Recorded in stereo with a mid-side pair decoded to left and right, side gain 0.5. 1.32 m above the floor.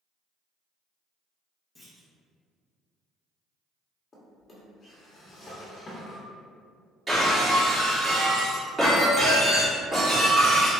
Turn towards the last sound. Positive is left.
turn(degrees=-20)